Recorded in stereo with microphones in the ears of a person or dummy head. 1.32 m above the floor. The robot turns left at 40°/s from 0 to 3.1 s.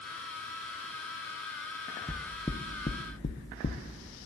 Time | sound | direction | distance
2.1 | knocking | 5° right (ahead or behind) | 0.6 m